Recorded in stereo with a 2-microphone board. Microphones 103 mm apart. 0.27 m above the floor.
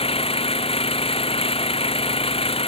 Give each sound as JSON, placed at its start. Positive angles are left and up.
{"t": 0.0, "sound": "an engine running", "side_deg": 75}